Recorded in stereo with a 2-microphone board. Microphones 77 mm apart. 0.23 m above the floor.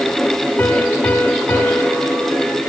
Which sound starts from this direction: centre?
A piano, at 0.6 s.